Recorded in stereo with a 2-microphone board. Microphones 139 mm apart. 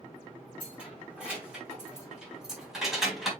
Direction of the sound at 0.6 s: 10° right (ahead or behind).